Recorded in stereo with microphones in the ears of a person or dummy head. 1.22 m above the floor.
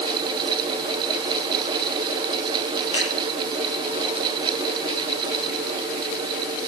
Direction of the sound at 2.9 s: 35° left (ahead or behind).